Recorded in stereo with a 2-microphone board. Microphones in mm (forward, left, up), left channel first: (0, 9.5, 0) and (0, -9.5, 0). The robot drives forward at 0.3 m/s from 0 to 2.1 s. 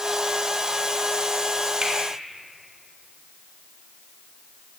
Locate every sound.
1.8 s a finger snap: 40° right (ahead or behind), 1.2 m